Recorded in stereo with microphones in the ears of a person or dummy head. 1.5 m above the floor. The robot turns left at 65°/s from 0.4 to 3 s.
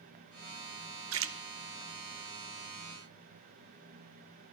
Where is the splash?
70° right (ahead or behind), 0.6 m; by 1.4 s 60° right (ahead or behind), 0.6 m.